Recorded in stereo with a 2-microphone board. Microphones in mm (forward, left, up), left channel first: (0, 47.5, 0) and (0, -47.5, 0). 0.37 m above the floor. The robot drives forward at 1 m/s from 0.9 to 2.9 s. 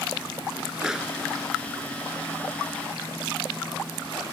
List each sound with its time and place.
0.8 s a pop: 5° right (ahead or behind)